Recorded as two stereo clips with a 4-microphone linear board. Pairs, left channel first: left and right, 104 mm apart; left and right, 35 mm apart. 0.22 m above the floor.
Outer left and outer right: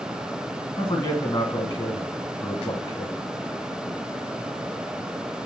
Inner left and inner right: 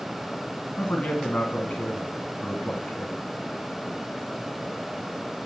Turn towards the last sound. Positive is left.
turn(degrees=35)  # may be behind; listen again after turning